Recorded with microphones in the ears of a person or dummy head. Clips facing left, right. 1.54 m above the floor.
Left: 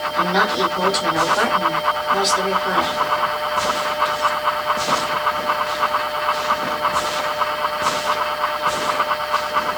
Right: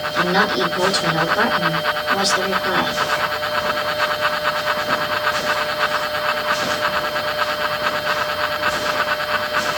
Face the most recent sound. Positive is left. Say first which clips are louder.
# right 1 dB
turn(degrees=-25)  # may be behind; listen again after turning